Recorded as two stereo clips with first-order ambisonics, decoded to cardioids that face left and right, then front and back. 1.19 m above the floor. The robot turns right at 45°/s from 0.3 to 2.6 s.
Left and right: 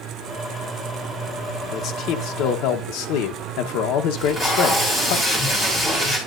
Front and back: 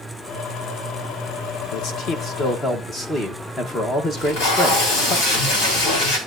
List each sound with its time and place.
1.7 s a man speaking: 30° left, 1.0 m; by 5.2 s 70° left, 1.0 m
4.2 s tape being pulled: 20° left, 3.5 m